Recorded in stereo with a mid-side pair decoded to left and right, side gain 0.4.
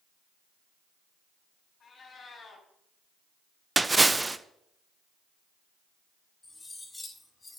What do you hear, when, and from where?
1.8 s a cat meowing: 60° left, 3.5 m
3.8 s a splash: 20° right, 0.8 m
6.4 s cutlery clinking: 25° left, 6 m